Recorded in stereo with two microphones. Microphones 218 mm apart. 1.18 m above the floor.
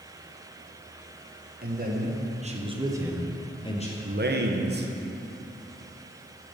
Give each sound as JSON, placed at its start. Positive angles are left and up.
{"t": 1.6, "sound": "a man speaking", "side_deg": -45, "distance_m": 1.3}
{"t": 4.0, "sound": "a man speaking", "side_deg": -50, "distance_m": 0.7}